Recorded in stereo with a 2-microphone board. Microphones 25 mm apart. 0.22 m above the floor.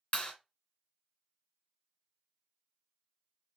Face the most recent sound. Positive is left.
turn(degrees=40)  # may be behind; listen again after turning